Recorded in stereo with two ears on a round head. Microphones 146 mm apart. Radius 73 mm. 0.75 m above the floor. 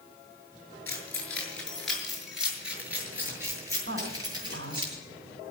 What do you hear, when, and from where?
0.9 s keys jangling: 15° left (ahead or behind), 6.5 m; by 4.8 s 30° right (ahead or behind), 8 m
3.9 s a woman speaking: 75° right (ahead or behind), 6.5 m